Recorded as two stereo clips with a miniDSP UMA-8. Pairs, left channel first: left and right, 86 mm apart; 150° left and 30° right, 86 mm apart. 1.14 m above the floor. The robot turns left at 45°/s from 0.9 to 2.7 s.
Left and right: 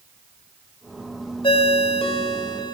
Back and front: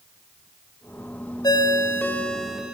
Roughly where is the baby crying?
I don't hear a baby crying.